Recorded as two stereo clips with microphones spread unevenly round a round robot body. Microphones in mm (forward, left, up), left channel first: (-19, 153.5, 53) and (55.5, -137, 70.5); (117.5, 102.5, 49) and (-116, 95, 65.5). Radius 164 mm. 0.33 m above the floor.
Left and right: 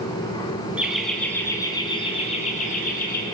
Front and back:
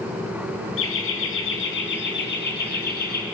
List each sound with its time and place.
0.8 s laughter: 10° left, 4 m; by 3.2 s 45° left, 6 m